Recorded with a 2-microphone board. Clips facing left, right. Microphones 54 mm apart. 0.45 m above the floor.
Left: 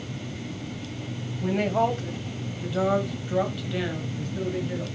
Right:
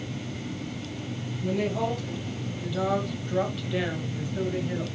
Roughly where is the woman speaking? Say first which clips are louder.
Left 4 dB; left.